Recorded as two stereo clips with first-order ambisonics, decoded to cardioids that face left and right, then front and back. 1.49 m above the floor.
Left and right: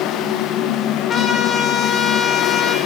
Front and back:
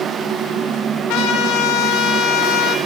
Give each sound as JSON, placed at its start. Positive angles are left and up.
{"t": 1.1, "sound": "a trumpet", "azimuth_deg": 25, "distance_m": 1.0}